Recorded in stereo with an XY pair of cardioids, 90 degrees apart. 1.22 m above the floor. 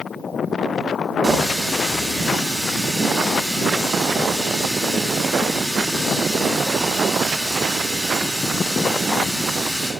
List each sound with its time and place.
1.2 s a running tap: straight ahead, 2.5 m